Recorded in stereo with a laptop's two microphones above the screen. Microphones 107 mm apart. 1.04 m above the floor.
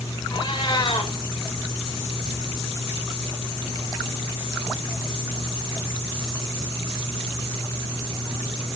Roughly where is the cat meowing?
Left.